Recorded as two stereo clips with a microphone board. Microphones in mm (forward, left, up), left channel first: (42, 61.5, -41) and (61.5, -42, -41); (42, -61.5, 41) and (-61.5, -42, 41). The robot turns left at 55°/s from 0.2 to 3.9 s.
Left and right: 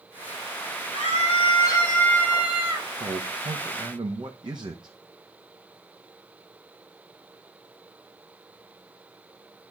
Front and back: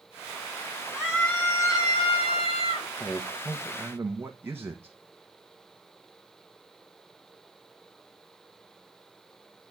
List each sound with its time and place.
0.9 s a scream: 90° left, 6.5 m; by 2.9 s 20° right, 6.5 m
3.0 s a man speaking: 75° right, 1.2 m; by 5.0 s 120° right, 1.2 m